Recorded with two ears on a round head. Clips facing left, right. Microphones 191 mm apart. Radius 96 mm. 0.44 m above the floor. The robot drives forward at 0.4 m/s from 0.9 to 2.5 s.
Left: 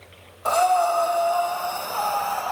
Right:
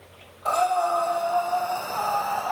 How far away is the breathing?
About 1.8 m.